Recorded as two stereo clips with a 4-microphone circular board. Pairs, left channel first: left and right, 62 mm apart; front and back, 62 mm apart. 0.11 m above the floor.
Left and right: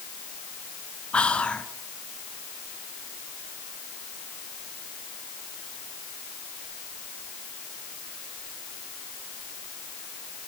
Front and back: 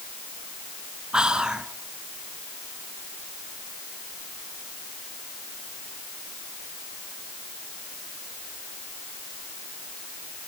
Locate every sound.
1.1 s whispering: 125° left, 1.2 m